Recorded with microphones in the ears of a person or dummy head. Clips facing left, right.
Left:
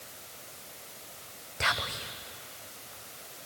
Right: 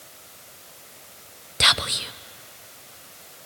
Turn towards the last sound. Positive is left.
turn(degrees=-45)  # may be behind; listen again after turning